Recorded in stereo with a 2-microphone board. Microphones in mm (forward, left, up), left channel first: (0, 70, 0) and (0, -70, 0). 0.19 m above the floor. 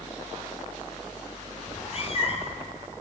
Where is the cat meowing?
45° left (ahead or behind), 1.1 m.